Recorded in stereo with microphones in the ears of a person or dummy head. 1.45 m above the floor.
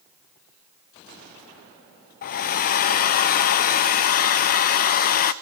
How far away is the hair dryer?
About 0.5 m.